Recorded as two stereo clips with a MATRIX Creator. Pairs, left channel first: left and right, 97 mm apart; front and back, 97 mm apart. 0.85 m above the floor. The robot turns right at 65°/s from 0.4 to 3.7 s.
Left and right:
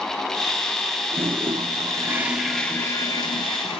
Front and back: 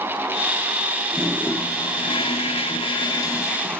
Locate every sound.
1.1 s a toilet flushing: 90° right, 0.7 m; by 3.8 s 80° left, 0.7 m